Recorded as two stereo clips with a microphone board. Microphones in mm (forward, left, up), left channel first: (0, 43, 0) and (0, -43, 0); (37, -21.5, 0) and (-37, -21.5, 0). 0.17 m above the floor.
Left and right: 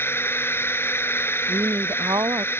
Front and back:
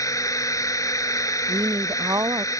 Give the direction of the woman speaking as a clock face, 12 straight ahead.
5 o'clock.